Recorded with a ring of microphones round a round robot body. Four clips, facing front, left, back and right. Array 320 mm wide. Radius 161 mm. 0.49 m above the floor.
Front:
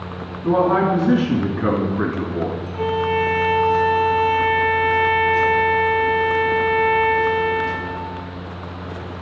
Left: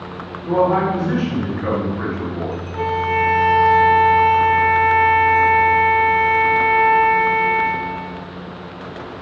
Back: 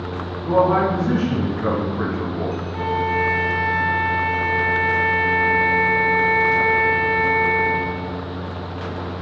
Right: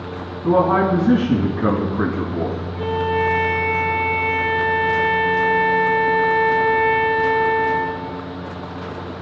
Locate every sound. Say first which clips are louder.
0.4 s a man speaking: right 1 dB, even; 85° right, 3.5 m
2.7 s a violin: left 2 dB, front 2 dB; 110° left, 5 m